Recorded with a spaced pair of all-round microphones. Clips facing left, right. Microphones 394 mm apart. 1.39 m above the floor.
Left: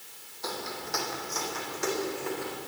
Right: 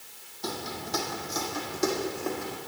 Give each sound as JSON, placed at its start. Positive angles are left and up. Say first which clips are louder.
{"t": 0.4, "sound": "footsteps", "louder": "right 2 dB", "side_deg": -45, "distance_m": 3.0}